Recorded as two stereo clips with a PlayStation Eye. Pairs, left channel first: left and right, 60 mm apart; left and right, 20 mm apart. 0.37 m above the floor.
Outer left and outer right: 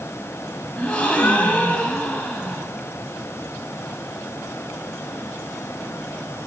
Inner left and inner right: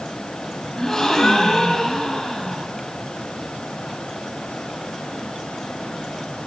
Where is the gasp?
20° left (ahead or behind), 0.9 m.